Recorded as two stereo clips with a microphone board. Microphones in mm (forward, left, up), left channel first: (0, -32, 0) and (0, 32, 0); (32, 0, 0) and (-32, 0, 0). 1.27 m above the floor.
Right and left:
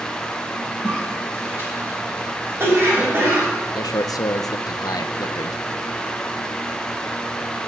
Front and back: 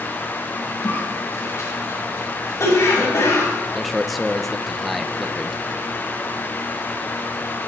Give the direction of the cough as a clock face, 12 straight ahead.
11 o'clock.